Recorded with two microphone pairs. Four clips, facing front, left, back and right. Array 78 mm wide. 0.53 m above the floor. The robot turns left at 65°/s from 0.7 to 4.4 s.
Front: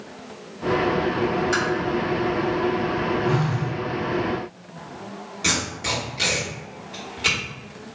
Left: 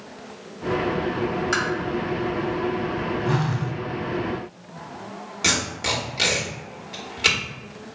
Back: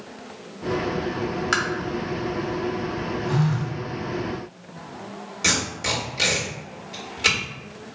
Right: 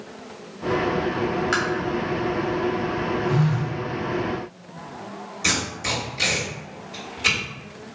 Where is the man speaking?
No man speaking in this recording.